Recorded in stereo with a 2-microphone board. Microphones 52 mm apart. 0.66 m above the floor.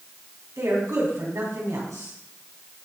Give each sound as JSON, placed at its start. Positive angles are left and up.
{"t": 0.6, "sound": "a woman speaking", "side_deg": -75, "distance_m": 5.0}